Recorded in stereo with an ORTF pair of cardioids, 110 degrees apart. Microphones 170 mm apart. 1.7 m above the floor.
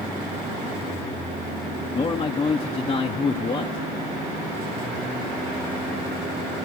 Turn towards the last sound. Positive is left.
turn(degrees=30)